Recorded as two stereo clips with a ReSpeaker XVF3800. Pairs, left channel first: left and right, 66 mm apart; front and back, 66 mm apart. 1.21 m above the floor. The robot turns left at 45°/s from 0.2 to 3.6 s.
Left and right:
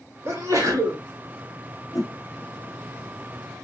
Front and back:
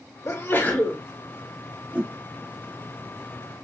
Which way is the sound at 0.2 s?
45° right.